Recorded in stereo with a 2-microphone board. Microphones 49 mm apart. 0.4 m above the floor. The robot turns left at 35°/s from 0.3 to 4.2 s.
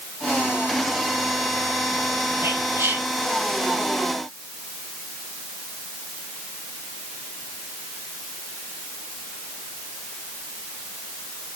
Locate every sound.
2.4 s whispering: 70° right (ahead or behind), 3.5 m; by 3.1 s 55° right (ahead or behind), 3.5 m